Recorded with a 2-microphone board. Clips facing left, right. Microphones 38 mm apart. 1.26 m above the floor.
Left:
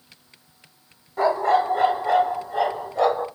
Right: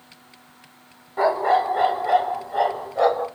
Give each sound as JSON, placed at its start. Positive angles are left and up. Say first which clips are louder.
{"t": 1.2, "sound": "a dog barking", "louder": "even", "side_deg": -15, "distance_m": 1.1}